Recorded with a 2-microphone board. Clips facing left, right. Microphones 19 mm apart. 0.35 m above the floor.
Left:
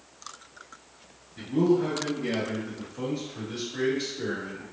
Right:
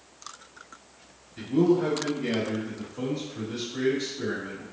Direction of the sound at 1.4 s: 35° right (ahead or behind).